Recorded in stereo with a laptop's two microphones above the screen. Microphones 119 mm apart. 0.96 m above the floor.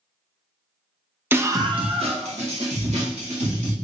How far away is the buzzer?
I don't hear a buzzer.